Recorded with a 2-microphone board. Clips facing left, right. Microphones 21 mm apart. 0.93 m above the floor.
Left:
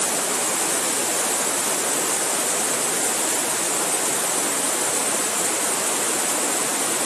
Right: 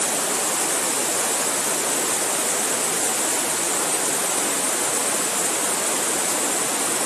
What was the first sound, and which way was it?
Only background noise.